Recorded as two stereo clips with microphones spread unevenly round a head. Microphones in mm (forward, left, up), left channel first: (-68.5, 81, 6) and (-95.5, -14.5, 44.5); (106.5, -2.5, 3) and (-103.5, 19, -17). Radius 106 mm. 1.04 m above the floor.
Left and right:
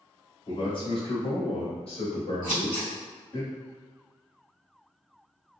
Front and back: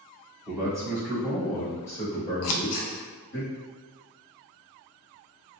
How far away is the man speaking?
About 1.6 m.